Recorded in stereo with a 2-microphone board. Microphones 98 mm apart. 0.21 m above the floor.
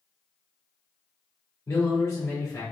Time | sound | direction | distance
1.7 | a man speaking | 35° left (ahead or behind) | 1.8 m